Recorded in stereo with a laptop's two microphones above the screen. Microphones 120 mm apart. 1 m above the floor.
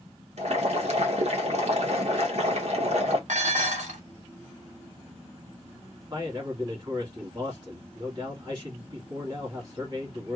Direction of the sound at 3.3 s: 85° right.